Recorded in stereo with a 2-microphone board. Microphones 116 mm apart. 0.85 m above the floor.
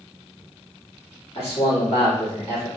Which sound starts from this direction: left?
A man speaking, at 1.4 s.